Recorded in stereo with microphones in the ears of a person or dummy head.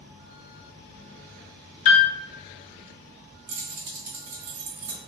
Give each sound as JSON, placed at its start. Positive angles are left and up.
{"t": 1.9, "sound": "a piano", "side_deg": 40, "distance_m": 0.8}
{"t": 3.5, "sound": "keys jangling", "side_deg": -50, "distance_m": 1.0}